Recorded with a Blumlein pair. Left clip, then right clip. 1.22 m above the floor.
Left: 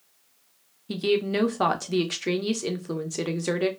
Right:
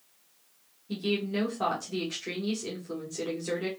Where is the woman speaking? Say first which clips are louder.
Left 7 dB; 30° left, 1.0 m.